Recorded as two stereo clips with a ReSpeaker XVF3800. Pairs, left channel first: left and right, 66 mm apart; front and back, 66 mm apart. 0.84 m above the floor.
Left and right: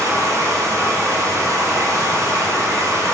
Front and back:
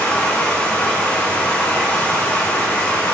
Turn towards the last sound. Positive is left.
turn(degrees=-65)